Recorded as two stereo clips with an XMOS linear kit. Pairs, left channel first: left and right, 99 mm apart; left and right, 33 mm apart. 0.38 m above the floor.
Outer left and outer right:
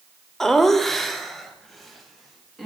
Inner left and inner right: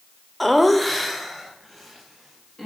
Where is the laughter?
5° left (ahead or behind), 0.8 m; by 2.7 s centre (ahead or behind), 2.5 m.